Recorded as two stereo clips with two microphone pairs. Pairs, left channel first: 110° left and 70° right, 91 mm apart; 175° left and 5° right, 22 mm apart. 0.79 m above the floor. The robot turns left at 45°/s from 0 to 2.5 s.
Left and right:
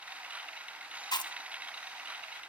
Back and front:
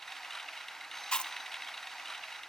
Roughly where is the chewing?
Behind left.